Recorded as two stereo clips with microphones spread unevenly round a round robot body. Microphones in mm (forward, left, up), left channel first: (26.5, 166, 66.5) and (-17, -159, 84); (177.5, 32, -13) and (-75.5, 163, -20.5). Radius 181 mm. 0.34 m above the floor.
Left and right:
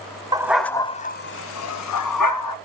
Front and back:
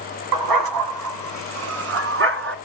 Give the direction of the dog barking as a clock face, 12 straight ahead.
6 o'clock.